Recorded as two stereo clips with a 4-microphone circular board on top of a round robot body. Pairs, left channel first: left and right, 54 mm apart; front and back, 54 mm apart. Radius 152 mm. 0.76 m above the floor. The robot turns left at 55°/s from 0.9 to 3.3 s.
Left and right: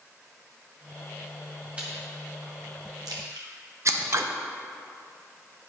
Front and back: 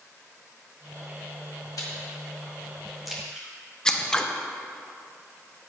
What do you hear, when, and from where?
1.8 s chewing: 20° right, 1.5 m; by 3.5 s 105° right, 1.5 m
3.9 s scissors: 75° right, 0.9 m